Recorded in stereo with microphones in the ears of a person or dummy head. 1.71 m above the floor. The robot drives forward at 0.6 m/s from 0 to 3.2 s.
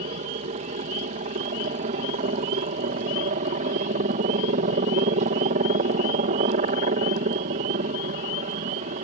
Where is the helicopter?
35° right (ahead or behind).